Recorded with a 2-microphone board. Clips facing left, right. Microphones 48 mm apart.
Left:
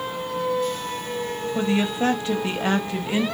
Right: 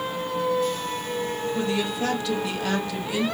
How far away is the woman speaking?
About 0.7 m.